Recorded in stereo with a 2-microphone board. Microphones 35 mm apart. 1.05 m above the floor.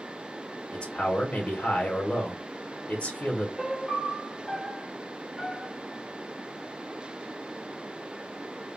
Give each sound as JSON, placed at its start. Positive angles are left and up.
{"t": 0.7, "sound": "a man speaking", "side_deg": 40, "distance_m": 0.9}
{"t": 3.6, "sound": "a piano", "side_deg": -10, "distance_m": 0.5}